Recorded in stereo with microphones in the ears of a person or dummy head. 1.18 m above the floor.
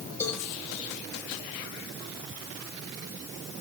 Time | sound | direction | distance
0.2 | a cowbell | 15° left (ahead or behind) | 4.5 m